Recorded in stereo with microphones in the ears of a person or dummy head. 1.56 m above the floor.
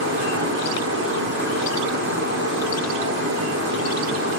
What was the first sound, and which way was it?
A fan, 75° right (ahead or behind).